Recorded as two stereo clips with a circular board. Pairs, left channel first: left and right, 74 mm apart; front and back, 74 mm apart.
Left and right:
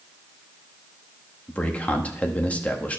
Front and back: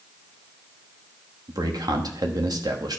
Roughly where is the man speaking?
Behind.